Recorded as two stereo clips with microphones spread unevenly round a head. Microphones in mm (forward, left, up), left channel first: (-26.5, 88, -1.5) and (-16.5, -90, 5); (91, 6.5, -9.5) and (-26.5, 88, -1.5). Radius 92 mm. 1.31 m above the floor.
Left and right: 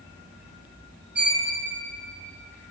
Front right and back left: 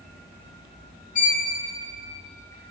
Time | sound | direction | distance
1.1 | a violin | 5° right | 1.1 m